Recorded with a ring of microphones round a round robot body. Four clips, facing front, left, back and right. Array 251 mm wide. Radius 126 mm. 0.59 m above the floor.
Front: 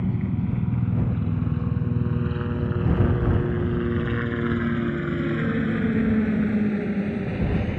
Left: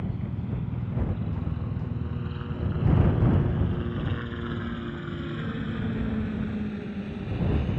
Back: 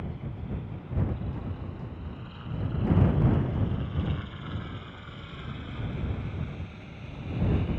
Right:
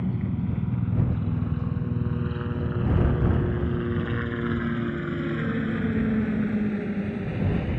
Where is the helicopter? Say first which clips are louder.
Right 5 dB, front 13 dB; 25° right; by 7.8 s 20° right.